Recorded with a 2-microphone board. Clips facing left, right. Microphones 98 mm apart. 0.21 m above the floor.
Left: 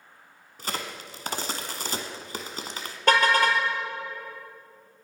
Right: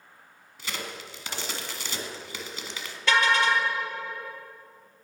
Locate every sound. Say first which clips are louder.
0.6 s a crack: left 3 dB; 40° left (ahead or behind), 1.2 m
3.1 s a car horn: left 2 dB; 45° left (ahead or behind), 2 m